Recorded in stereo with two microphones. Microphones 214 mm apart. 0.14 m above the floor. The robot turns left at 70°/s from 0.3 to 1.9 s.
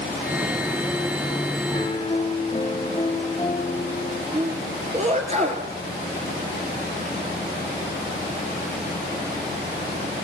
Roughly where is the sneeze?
Right.